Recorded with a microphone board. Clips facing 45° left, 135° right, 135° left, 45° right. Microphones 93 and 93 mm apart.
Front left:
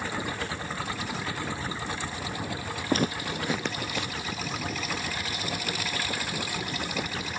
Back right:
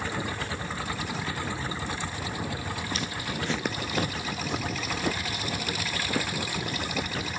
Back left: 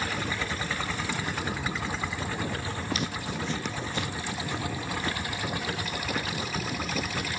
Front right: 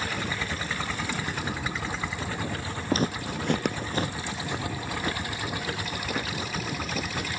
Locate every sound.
2.9 s footsteps: 10° left, 1.1 m; by 7.3 s 135° right, 4.5 m